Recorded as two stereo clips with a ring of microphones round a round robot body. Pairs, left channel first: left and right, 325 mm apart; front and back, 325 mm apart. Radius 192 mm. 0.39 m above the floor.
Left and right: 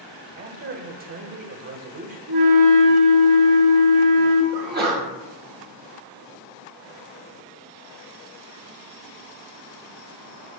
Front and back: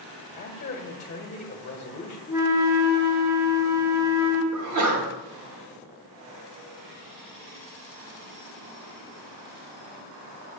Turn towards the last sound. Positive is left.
turn(degrees=-150)